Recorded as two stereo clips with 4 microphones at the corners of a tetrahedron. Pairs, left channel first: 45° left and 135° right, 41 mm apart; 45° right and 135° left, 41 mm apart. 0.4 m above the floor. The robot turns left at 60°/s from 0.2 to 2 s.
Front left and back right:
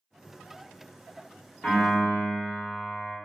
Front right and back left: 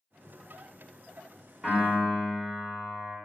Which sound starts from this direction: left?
A piano, at 1.6 s.